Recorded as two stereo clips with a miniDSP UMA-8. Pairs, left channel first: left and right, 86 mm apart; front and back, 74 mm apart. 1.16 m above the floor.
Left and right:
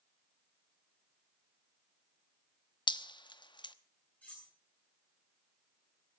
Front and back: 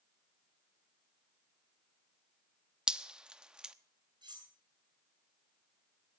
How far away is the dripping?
About 0.9 m.